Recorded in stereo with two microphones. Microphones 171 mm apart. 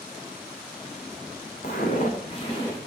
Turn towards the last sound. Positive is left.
turn(degrees=20)  # may be behind; listen again after turning